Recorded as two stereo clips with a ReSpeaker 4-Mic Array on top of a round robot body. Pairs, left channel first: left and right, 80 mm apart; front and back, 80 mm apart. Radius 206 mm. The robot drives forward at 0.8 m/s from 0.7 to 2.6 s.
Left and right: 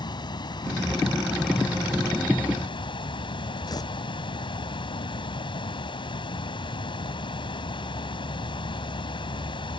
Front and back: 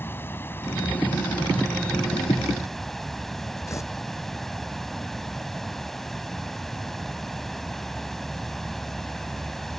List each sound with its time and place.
0.0 s running water: 65° left; by 9.8 s 85° left
3.7 s tearing paper: 55° left